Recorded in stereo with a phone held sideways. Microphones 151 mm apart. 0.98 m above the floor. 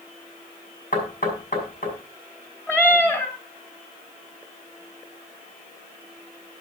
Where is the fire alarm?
I don't hear a fire alarm.